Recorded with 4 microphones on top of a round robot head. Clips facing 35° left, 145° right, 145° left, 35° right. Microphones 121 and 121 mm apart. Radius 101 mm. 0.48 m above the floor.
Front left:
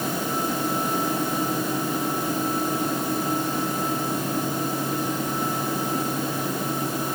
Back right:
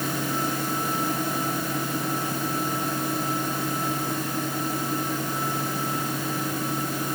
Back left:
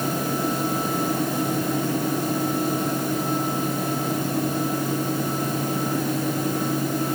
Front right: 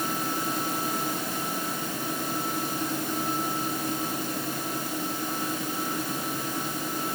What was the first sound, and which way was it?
Only background noise.